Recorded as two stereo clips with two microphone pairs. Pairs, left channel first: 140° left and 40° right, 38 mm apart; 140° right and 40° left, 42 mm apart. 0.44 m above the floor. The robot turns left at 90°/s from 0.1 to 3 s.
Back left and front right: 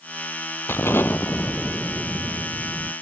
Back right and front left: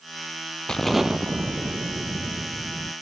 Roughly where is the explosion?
Behind left.